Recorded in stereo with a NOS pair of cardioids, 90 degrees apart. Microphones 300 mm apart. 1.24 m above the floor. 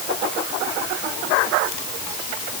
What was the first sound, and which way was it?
Only background noise.